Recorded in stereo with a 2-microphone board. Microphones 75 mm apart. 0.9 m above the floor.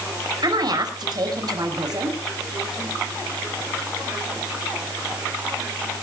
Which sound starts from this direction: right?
A woman speaking, at 0.4 s.